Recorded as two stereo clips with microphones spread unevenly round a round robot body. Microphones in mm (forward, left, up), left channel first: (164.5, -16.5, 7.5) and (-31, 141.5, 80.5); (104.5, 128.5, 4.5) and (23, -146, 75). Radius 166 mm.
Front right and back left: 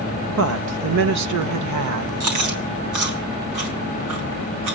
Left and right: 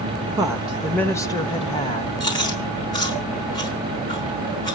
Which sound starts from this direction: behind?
A woman speaking, at 0.3 s.